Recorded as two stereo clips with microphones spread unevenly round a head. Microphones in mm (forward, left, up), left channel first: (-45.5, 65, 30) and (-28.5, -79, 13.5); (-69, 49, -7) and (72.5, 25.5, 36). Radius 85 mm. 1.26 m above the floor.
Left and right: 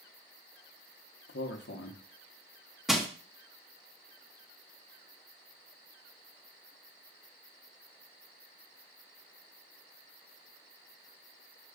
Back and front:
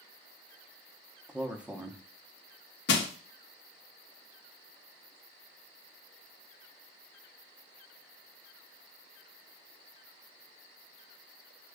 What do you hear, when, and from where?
1.3 s a man speaking: 75° left, 0.8 m
2.9 s crushing: 175° right, 0.7 m